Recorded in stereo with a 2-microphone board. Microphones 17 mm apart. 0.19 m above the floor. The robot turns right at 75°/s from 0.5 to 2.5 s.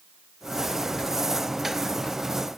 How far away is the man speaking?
No man speaking in this recording.